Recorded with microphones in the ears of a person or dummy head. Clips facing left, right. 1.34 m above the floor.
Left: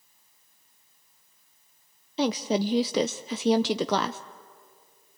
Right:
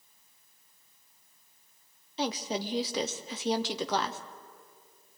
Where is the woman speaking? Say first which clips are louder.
Left 7 dB; 55° left (ahead or behind), 0.6 m.